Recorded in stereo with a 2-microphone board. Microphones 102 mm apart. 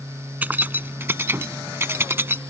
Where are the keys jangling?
15° right (ahead or behind); by 2.4 s 20° right (ahead or behind).